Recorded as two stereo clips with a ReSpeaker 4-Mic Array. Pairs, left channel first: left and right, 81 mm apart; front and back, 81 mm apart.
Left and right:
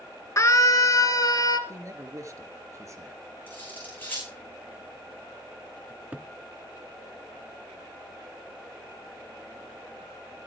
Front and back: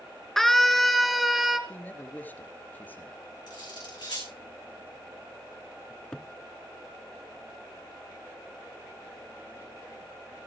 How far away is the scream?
About 1.9 m.